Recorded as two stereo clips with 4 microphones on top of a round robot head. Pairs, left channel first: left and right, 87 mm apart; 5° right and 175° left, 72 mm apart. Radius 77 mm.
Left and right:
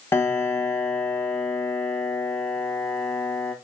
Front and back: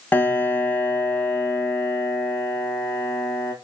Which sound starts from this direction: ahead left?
A piano, at 0.1 s.